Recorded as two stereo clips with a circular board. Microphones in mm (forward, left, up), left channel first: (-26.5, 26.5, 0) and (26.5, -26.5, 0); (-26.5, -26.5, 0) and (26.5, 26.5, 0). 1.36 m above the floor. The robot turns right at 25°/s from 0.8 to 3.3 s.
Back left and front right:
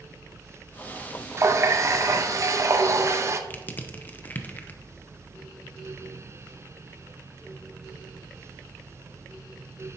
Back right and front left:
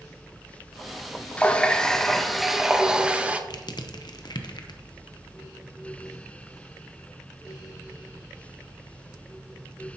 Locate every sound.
1.4 s a running tap: 70° right, 0.6 m; by 3.4 s 20° right, 0.6 m
3.5 s crushing: 160° right, 0.7 m